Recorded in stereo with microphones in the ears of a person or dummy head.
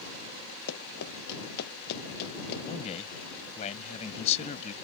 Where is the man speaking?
35° left (ahead or behind).